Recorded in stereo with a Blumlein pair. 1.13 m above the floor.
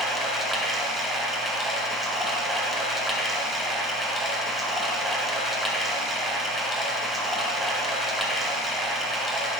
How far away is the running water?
About 0.8 m.